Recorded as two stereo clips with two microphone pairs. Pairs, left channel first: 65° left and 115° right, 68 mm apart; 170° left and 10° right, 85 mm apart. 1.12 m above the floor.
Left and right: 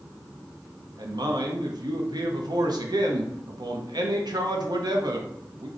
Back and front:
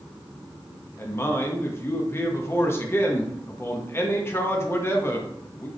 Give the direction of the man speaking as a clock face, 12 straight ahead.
4 o'clock.